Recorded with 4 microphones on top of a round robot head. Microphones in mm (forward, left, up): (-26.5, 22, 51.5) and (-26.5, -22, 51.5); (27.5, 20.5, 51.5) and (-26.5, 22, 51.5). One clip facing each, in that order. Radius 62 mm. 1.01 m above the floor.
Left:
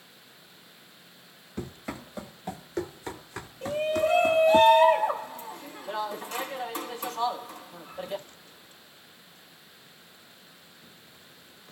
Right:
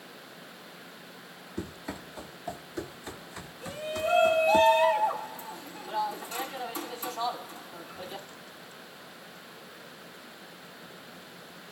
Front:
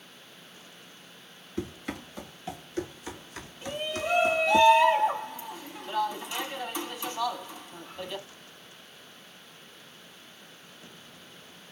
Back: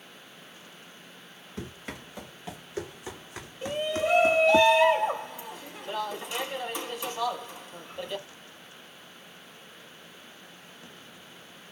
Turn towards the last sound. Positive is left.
turn(degrees=100)